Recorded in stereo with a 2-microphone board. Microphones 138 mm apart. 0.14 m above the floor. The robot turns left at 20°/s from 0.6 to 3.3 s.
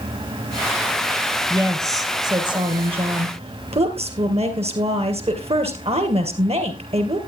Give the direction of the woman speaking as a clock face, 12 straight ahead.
1 o'clock.